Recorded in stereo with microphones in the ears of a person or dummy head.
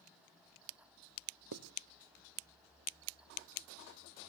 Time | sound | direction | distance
1.5 | writing | 75° right (ahead or behind) | 0.7 m